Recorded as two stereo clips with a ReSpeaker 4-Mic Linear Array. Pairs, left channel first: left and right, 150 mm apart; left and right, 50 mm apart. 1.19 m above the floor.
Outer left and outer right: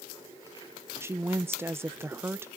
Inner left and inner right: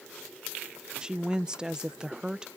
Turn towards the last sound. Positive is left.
turn(degrees=-15)  # may be behind; listen again after turning